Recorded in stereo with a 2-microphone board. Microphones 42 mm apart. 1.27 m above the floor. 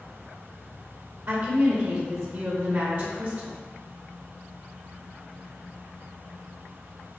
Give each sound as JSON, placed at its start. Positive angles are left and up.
{"t": 1.3, "sound": "a woman speaking", "side_deg": -65, "distance_m": 0.9}